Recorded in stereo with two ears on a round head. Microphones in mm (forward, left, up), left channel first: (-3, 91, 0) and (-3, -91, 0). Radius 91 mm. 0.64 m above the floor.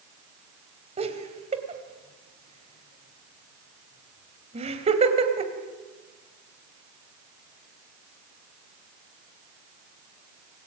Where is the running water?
No running water in this recording.